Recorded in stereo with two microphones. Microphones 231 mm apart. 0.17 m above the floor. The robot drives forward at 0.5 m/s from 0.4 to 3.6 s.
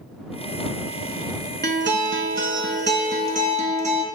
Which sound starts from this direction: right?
A guitar, at 1.6 s.